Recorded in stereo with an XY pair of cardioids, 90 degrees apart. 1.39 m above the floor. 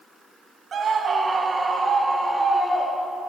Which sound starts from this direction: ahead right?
A scream, at 0.7 s.